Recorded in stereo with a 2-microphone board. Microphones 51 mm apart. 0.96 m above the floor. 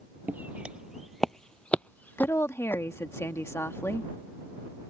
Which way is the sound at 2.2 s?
60° left (ahead or behind).